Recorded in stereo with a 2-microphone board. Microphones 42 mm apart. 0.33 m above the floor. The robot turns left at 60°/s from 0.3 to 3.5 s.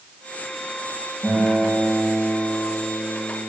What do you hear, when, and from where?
1.2 s a guitar: 130° right, 4 m; by 3.5 s 95° left, 4 m